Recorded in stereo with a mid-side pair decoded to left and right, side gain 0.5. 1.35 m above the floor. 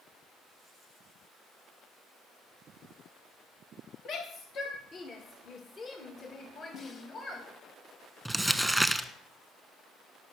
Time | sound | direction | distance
4.0 | a shout | 65° left | 1.3 m
6.7 | a snare drum | 50° left | 1.6 m
8.2 | crumpling | straight ahead | 1.1 m